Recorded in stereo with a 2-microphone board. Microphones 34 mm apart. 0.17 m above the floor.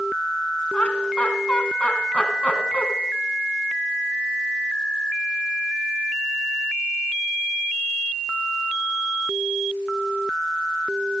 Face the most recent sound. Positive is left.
turn(degrees=35)  # may be behind; listen again after turning